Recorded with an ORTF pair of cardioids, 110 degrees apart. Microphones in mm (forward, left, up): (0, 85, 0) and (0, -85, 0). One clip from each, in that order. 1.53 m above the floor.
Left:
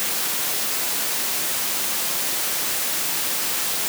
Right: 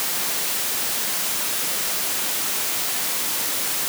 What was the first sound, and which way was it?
Only background noise.